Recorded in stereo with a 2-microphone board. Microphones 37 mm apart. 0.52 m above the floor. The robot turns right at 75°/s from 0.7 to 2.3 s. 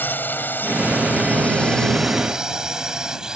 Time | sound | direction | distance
0.0 | a drone | 60° left (ahead or behind) | ?